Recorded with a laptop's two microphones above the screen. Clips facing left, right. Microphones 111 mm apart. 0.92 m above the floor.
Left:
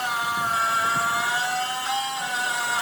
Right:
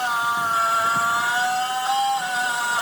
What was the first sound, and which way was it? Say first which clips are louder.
A machine running: right 3 dB; 30° right (ahead or behind).